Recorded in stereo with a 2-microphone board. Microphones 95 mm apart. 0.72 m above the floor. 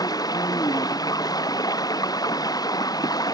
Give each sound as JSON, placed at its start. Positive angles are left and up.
{"t": 0.0, "sound": "running water", "side_deg": 40}